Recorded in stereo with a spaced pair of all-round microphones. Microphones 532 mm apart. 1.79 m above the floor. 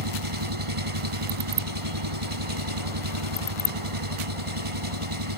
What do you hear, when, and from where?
0.0 s an engine running: 70° right (ahead or behind)